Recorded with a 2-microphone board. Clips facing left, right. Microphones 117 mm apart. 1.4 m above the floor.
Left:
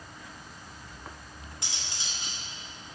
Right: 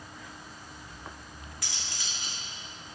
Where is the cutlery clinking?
25° left (ahead or behind), 1.8 m.